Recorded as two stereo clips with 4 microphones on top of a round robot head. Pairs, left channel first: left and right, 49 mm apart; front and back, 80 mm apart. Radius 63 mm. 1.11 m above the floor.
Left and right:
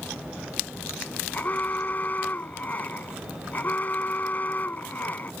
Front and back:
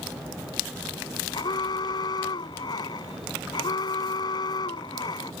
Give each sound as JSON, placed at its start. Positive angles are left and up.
{"t": 1.3, "sound": "an alarm", "azimuth_deg": 35}